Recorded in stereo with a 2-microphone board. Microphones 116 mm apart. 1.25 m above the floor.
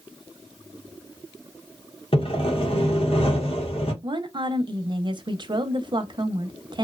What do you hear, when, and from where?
2.1 s sawing: 55° left (ahead or behind), 0.8 m
4.0 s a woman speaking: 40° right (ahead or behind), 0.6 m